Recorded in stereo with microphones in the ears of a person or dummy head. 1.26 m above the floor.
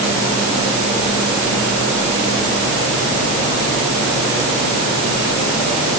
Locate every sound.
Only background noise.